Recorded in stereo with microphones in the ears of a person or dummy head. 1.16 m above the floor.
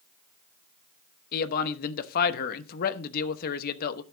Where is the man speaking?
50° left (ahead or behind), 1.0 m.